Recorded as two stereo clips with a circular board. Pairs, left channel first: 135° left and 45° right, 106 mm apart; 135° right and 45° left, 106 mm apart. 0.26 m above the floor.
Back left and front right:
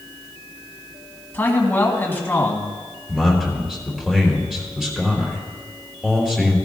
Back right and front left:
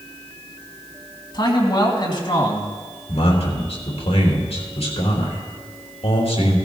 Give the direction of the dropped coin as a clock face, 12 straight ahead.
No dropped coin in this recording.